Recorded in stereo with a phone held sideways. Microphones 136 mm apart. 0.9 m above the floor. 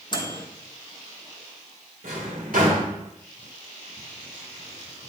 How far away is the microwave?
About 0.9 m.